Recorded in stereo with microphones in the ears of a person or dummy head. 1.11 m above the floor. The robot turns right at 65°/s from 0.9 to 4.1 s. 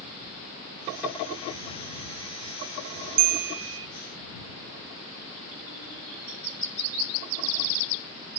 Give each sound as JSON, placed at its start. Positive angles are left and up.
{"t": 3.2, "sound": "a bell", "azimuth_deg": -125}